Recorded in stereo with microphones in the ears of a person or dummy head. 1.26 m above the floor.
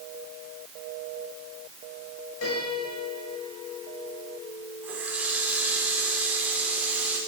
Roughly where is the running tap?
Centre.